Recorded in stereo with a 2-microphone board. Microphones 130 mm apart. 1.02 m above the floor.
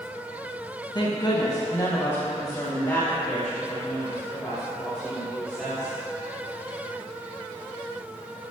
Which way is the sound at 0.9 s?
35° left (ahead or behind).